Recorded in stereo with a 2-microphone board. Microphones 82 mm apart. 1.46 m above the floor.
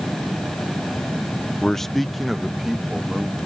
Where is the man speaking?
10° left (ahead or behind); by 3.4 s 5° right (ahead or behind).